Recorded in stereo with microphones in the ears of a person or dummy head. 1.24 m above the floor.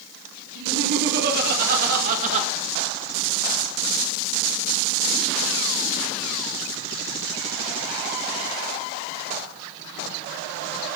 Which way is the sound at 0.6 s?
65° right (ahead or behind).